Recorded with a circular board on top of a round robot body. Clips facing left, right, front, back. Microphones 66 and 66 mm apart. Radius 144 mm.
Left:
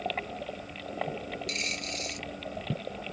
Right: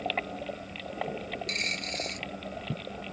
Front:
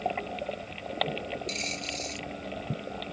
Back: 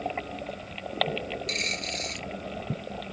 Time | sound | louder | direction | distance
1.5 | a dropped coin | right 1 dB, back 3 dB | 140° right | ?